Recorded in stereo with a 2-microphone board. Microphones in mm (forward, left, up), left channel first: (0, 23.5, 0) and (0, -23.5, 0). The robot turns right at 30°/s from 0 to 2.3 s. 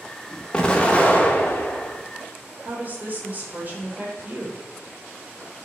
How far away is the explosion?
About 0.5 m.